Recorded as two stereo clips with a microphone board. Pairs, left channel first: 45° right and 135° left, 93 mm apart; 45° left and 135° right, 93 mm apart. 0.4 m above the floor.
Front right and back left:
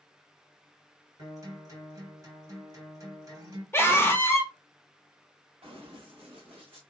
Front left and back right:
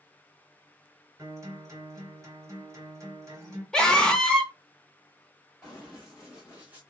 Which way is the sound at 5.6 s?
130° left.